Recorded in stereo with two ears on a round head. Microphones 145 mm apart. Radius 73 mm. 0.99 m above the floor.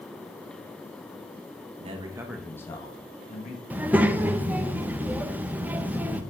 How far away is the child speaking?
About 0.6 m.